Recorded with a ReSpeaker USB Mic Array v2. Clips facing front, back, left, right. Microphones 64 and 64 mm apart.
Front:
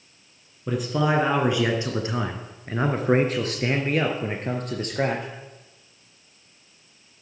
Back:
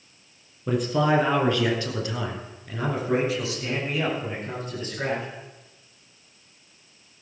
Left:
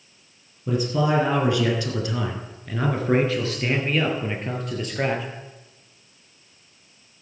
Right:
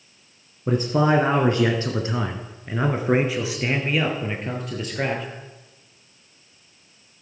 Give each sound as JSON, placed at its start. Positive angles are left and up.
{"t": 0.7, "sound": "a man speaking", "azimuth_deg": -90, "distance_m": 1.6}